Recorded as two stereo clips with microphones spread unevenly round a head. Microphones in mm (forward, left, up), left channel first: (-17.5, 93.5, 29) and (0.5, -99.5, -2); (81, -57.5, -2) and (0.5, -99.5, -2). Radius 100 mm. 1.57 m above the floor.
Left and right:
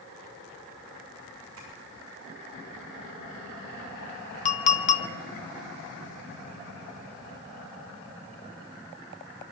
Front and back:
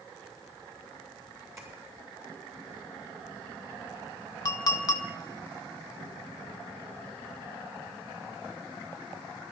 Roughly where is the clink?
Left.